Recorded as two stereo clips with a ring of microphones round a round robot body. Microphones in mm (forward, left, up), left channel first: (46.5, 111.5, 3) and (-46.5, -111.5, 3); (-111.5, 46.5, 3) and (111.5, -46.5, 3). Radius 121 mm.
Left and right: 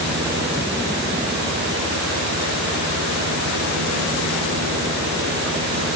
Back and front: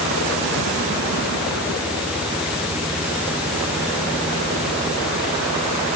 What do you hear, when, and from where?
Only background noise.